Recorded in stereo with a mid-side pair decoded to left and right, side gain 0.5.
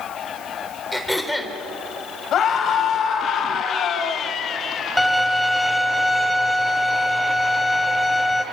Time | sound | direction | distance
0.9 | throat clearing | 5° left | 3.5 m
2.3 | a scream | 55° left | 5.5 m
5.0 | a violin | 5° left | 2.5 m